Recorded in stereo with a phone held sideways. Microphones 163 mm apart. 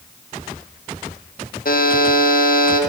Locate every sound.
1.6 s a buzzer: 65° left (ahead or behind), 0.5 m